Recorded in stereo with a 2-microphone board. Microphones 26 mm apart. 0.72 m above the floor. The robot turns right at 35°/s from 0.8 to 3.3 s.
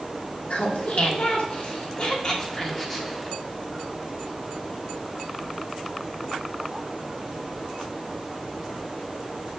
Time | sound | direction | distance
0.5 | laughter | 60° left (ahead or behind) | 2.0 m